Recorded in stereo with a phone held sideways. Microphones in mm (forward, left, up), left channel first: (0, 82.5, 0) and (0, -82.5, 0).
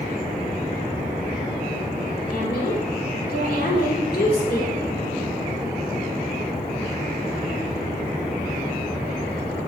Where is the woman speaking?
70° left (ahead or behind), 2.5 m.